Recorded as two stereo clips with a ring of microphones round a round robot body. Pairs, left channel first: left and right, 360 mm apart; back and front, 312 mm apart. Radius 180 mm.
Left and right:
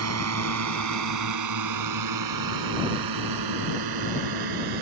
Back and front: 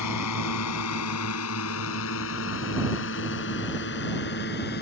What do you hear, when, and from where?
0.0 s a drone: 140° right; by 4.8 s 115° right